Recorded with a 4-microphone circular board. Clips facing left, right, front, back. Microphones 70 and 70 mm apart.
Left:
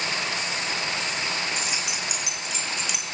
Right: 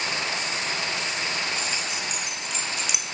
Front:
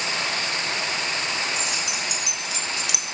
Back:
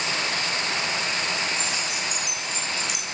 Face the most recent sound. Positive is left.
turn(degrees=-10)